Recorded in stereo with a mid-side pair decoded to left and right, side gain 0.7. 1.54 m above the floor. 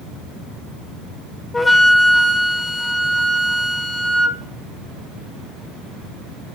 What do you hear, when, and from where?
1.5 s a flute: 15° left, 1.0 m